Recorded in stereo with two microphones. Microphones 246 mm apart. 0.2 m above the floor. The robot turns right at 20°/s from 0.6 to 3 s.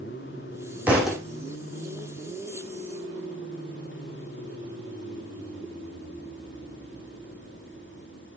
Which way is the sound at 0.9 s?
5° right (ahead or behind).